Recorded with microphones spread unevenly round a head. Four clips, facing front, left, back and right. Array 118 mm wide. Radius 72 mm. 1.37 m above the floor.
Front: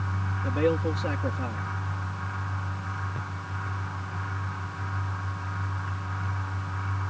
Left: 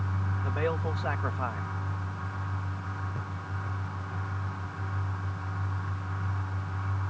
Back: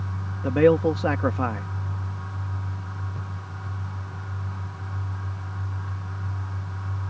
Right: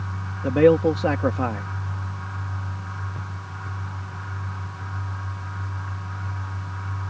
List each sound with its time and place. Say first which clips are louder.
0.4 s a man speaking: right 16 dB, back 8 dB; 125° right